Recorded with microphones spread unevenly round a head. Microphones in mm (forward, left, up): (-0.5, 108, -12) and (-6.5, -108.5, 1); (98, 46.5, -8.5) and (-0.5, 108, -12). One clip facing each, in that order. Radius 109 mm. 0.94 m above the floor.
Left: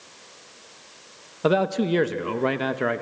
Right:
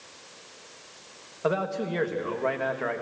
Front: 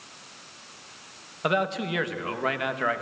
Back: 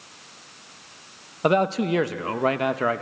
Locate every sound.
1.4 s a man speaking: 100° left, 0.9 m